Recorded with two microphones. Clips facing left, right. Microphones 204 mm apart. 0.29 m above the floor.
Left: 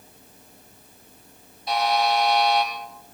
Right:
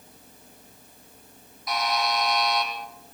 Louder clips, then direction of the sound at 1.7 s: Left 5 dB; 30° left (ahead or behind).